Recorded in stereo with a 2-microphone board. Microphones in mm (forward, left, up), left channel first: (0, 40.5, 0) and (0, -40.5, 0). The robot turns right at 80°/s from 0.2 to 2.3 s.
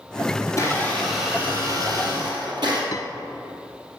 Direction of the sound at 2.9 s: 55° left (ahead or behind).